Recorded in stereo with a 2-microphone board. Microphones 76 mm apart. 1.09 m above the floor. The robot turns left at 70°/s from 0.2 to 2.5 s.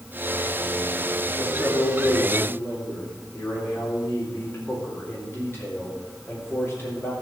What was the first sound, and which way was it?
A man speaking, 110° left.